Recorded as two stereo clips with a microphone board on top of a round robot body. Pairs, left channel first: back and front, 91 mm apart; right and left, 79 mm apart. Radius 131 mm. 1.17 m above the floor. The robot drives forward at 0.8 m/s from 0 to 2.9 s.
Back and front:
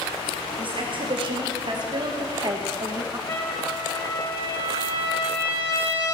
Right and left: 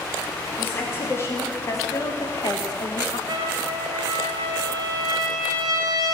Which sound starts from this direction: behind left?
A trumpet, at 3.3 s.